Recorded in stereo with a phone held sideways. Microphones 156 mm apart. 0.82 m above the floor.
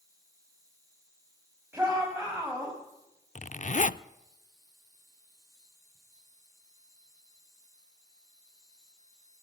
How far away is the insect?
About 5.5 m.